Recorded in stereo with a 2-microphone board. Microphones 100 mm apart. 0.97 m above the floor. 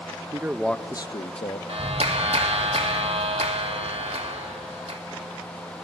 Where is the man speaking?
30° right (ahead or behind), 0.7 m; by 1.6 s 70° left (ahead or behind), 1.1 m.